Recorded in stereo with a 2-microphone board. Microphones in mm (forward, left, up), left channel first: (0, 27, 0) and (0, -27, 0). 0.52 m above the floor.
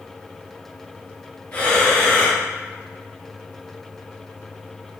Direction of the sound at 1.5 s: 30° left (ahead or behind).